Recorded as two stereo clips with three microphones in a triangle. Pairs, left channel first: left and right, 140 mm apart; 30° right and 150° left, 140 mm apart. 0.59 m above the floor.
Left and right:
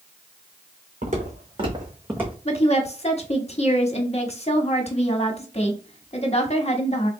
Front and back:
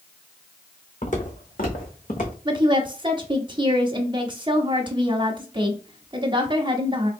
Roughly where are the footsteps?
Ahead right.